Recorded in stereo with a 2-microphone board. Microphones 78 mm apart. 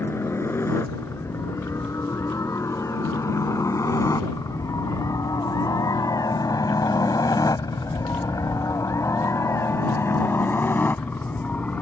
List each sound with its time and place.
0.0 s a helicopter: 30° left (ahead or behind); by 11.8 s 20° left (ahead or behind)